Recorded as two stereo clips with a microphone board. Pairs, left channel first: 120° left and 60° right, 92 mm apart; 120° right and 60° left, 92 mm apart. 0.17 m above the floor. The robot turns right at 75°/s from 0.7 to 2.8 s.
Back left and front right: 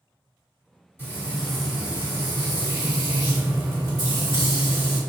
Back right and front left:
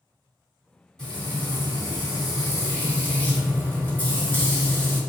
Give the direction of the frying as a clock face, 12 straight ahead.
7 o'clock.